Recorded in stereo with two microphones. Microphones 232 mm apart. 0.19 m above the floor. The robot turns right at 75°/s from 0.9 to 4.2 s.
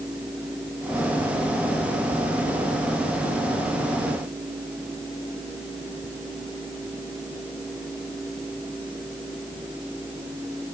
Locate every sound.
Only background noise.